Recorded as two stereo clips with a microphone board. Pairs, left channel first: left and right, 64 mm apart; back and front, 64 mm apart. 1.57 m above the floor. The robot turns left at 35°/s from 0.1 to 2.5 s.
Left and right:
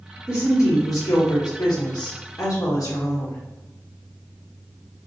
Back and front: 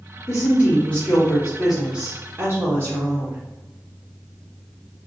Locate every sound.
0.3 s a woman speaking: 135° left, 1.4 m; by 3.4 s 55° left, 1.4 m